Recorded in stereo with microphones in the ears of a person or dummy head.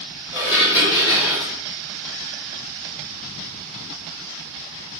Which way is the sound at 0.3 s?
20° left (ahead or behind).